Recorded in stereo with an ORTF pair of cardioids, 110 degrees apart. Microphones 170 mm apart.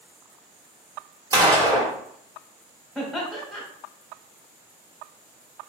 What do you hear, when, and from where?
1.3 s a gunshot: 20° right, 1.1 m
3.0 s laughter: straight ahead, 1.1 m